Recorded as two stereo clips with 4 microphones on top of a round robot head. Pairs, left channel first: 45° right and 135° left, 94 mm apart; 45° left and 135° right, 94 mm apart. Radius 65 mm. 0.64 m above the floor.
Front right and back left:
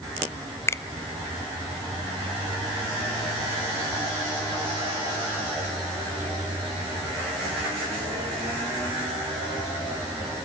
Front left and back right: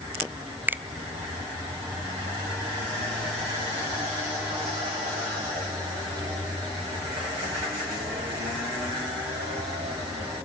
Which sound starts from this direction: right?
A finger snap, at 0.7 s.